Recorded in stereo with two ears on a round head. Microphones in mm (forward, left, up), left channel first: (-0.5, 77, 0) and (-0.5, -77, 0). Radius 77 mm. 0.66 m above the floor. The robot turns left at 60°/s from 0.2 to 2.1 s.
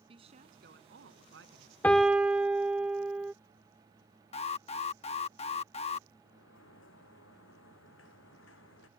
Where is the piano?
10° left (ahead or behind); by 3.3 s 5° right (ahead or behind).